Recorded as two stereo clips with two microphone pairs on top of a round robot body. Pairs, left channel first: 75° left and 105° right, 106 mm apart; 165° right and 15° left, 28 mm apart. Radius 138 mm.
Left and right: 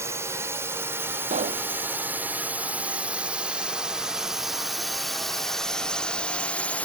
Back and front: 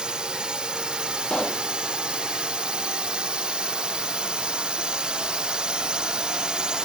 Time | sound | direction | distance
0.0 | a drone | 45° right | ?
1.3 | a pop | 110° right | ?